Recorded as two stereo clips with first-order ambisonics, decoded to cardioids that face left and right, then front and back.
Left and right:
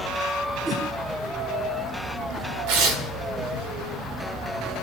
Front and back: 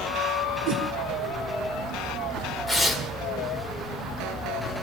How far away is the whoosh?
About 3.5 m.